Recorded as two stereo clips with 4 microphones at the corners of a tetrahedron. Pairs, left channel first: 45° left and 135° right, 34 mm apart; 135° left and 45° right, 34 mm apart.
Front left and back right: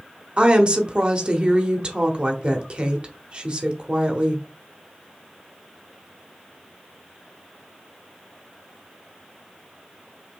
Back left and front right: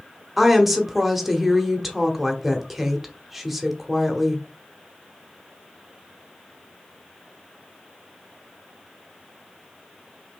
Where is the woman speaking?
130° right, 0.9 m.